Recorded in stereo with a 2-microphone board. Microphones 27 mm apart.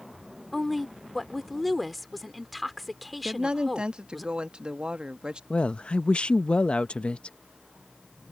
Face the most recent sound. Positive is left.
turn(degrees=40)  # may be behind; listen again after turning